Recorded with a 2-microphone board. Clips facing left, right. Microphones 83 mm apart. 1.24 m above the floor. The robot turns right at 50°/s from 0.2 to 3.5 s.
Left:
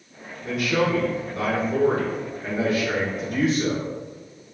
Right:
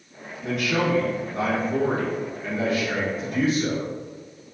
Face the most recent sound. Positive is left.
turn(degrees=70)